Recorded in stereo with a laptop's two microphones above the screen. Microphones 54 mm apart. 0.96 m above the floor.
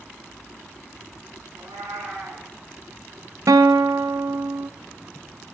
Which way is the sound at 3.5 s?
80° right.